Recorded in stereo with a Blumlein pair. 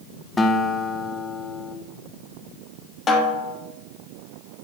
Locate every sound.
0.4 s a guitar: 15° left, 0.8 m
3.1 s a snare drum: 20° left, 1.2 m